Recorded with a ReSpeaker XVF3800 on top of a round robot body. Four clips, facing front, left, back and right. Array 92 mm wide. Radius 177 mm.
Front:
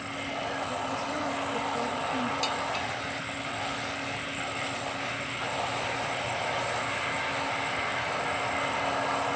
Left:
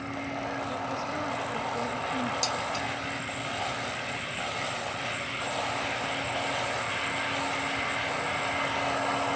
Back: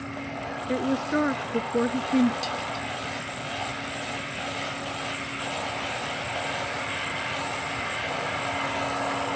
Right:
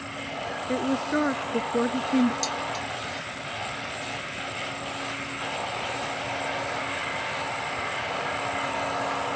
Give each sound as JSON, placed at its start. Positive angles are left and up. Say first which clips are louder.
{"t": 0.7, "sound": "a woman speaking", "louder": "right 6 dB, back 6 dB", "azimuth_deg": -135}
{"t": 2.4, "sound": "dishes clattering", "louder": "right 1 dB, even", "azimuth_deg": 30}